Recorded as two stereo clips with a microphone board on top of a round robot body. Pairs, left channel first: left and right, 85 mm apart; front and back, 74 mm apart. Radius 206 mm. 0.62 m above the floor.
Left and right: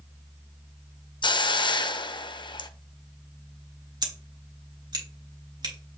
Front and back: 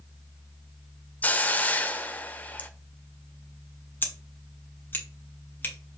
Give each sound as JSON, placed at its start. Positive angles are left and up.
{"t": 1.2, "sound": "a hiss", "azimuth_deg": 65, "distance_m": 0.8}
{"t": 4.0, "sound": "scissors", "azimuth_deg": -60, "distance_m": 2.5}